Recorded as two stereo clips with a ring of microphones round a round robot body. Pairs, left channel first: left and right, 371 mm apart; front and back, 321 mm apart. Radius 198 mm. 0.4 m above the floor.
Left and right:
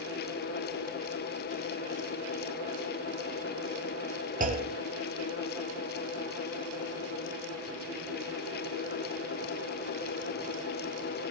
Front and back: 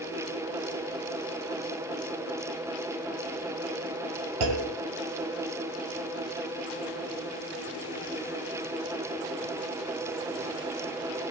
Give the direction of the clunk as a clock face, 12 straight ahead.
5 o'clock.